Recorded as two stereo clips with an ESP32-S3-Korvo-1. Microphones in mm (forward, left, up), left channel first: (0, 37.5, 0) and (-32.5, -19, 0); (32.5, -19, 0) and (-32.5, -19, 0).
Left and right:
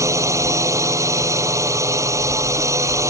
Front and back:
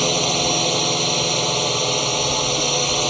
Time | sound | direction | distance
0.0 | a drone | 90° right | ?